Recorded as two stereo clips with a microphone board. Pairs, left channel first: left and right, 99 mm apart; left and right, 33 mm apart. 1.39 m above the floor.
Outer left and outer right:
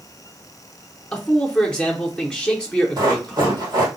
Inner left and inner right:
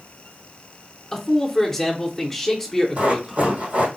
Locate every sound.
1.1 s a man speaking: 10° left (ahead or behind), 0.8 m
3.0 s running footsteps: 45° right (ahead or behind), 2.5 m